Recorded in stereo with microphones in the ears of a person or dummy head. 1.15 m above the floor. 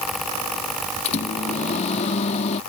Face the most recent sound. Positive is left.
turn(degrees=40)  # may be behind; listen again after turning